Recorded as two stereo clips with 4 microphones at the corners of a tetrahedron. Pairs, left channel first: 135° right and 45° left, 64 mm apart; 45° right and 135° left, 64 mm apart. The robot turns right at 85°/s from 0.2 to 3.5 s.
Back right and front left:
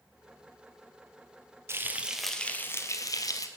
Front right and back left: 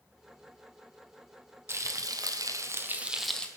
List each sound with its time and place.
1.7 s frying: 90° left, 1.3 m; by 3.5 s 120° right, 1.3 m